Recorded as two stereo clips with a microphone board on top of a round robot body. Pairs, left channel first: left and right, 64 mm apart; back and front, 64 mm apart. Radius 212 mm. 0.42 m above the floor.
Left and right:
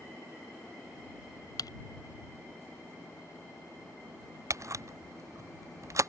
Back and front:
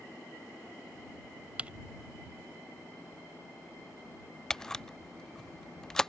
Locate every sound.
1.6 s typing on a keyboard: 70° left
4.5 s a camera shutter: 100° right